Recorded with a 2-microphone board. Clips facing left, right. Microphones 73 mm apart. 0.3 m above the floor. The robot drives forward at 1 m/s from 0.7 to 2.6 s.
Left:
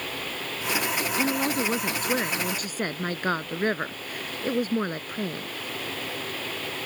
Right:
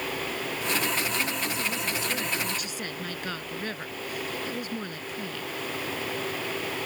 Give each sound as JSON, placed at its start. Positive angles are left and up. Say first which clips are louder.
{"t": 1.2, "sound": "a woman speaking", "louder": "left 5 dB", "side_deg": 60}